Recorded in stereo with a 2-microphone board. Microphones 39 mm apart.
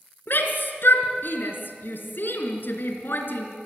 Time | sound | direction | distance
0.3 | a shout | 65° left (ahead or behind) | 3.5 m